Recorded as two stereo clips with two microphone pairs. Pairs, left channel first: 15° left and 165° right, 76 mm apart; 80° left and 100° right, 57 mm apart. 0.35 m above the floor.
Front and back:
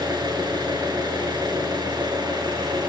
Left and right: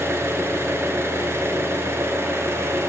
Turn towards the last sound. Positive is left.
turn(degrees=-145)